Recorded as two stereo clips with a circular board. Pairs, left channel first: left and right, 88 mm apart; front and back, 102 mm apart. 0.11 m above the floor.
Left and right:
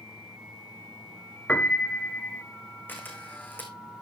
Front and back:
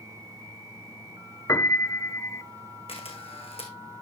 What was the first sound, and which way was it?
A piano, 30° left.